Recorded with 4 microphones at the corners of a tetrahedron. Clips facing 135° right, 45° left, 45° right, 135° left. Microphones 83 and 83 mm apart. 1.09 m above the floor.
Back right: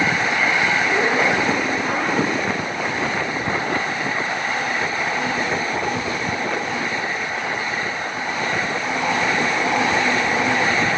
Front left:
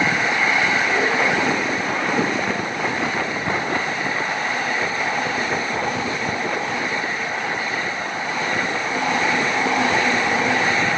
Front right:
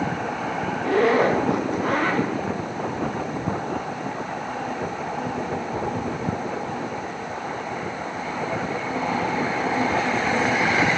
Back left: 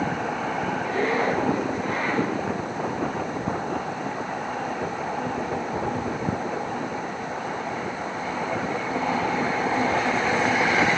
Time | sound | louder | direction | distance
0.8 | a zipper | back right 1 dB, front right 8 dB | 60° right | 0.7 m